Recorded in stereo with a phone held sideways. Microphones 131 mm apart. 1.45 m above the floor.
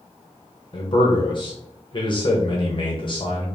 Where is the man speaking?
40° left (ahead or behind), 0.8 m.